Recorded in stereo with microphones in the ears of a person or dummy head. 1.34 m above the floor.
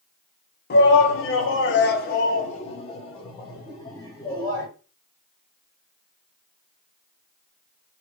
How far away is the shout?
About 0.9 m.